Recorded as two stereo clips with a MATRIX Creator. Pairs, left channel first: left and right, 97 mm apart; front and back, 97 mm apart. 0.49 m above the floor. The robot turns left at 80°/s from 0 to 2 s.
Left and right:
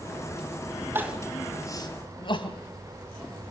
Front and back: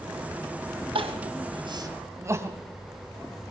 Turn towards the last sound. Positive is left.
turn(degrees=120)